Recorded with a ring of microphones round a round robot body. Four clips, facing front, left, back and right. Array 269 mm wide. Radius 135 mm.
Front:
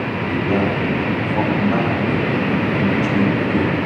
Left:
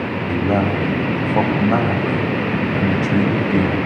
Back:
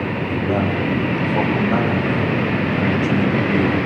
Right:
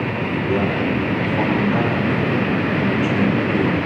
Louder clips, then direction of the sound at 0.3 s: Left 3 dB, front 2 dB; 90° left.